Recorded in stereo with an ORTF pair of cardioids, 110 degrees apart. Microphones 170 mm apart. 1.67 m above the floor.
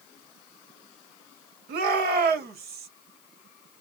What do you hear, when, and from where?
1.7 s a shout: 70° right, 1.7 m